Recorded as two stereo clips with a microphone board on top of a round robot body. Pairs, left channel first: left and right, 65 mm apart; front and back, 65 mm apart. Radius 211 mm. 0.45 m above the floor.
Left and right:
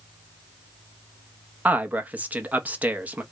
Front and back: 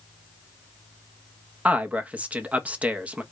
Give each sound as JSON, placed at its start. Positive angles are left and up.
{"t": 1.6, "sound": "a man speaking", "azimuth_deg": -130, "distance_m": 1.1}